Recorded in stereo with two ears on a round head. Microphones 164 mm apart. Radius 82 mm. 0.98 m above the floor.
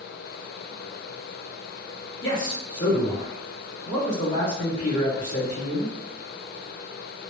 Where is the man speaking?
65° left (ahead or behind), 1.2 m.